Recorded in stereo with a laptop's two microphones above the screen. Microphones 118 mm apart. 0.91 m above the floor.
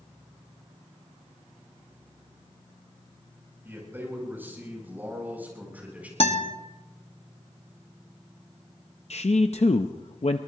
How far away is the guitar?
About 1.4 m.